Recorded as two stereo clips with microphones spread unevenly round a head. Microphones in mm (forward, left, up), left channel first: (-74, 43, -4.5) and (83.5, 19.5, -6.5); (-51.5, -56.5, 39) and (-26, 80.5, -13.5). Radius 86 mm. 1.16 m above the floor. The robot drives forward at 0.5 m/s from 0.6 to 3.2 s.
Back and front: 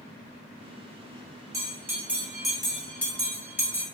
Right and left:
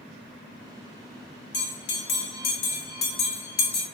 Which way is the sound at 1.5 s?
80° right.